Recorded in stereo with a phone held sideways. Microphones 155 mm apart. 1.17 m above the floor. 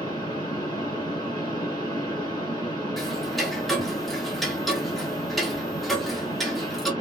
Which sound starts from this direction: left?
A fan, at 0.0 s.